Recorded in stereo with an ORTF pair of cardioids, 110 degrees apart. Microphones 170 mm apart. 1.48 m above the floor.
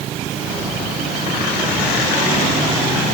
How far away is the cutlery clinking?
No cutlery clinking in this recording.